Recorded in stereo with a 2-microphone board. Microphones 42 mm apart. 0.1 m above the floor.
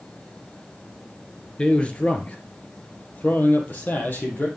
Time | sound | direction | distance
1.6 | a man speaking | 30° left (ahead or behind) | 1.4 m